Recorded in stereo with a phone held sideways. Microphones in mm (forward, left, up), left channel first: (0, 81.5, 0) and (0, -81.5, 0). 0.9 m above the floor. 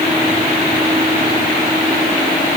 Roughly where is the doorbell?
No doorbell in this recording.